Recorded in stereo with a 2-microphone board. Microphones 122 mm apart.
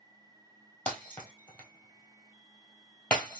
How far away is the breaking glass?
About 1.3 m.